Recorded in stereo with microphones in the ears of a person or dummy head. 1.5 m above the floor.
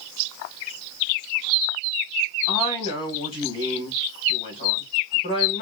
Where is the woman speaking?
30° left (ahead or behind), 2.0 m.